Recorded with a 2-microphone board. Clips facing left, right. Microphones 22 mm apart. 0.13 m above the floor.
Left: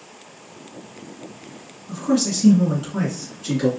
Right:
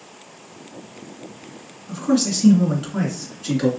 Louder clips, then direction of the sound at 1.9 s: Right 1 dB; 15° right (ahead or behind).